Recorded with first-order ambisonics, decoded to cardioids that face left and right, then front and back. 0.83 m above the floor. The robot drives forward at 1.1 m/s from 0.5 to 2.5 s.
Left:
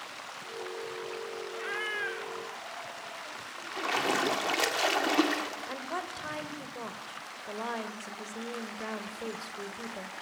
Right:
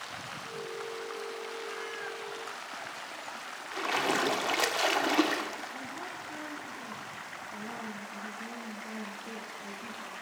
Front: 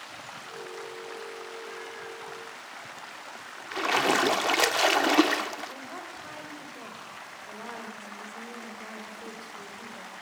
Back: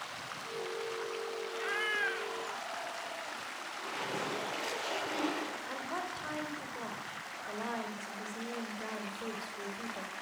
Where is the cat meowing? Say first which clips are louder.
Left 5 dB, back 6 dB; 125° left, 1.1 m; by 3.3 s 155° left, 1.9 m.